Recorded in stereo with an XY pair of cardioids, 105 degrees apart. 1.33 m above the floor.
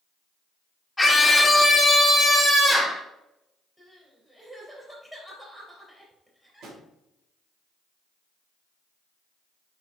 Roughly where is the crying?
Ahead.